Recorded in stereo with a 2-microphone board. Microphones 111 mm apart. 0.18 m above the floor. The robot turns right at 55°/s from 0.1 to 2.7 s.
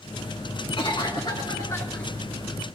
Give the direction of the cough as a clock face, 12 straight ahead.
9 o'clock.